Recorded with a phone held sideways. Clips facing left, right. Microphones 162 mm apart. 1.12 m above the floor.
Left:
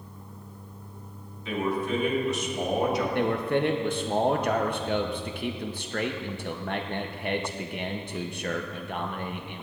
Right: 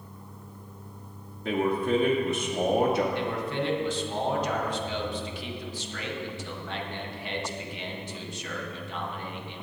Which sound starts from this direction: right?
A man speaking, at 1.4 s.